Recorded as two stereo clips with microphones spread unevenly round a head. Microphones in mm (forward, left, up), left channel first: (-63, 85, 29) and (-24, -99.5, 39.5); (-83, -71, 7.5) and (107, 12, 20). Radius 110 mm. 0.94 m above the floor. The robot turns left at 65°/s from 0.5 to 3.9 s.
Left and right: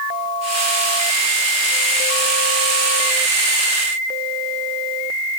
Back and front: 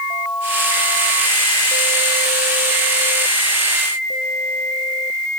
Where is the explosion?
I don't hear an explosion.